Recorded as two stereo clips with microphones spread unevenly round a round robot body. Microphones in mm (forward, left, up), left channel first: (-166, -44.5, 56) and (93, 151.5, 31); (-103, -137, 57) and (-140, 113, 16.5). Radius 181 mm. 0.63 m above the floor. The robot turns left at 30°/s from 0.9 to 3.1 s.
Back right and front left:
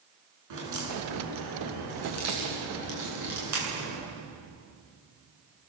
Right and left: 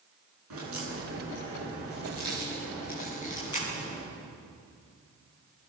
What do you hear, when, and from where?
0.5 s a crack: 60° left, 9 m; by 4.0 s 5° right, 9 m